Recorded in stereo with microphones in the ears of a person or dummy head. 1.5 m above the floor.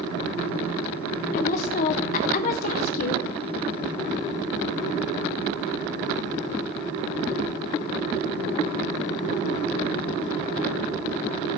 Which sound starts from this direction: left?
A woman speaking, at 1.3 s.